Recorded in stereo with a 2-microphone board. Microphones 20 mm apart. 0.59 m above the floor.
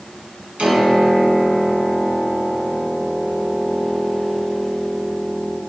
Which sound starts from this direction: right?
A piano, at 0.6 s.